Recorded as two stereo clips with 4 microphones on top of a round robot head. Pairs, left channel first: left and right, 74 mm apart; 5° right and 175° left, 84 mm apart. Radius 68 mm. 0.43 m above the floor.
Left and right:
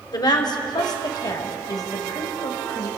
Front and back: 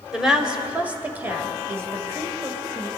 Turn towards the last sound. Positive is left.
turn(degrees=130)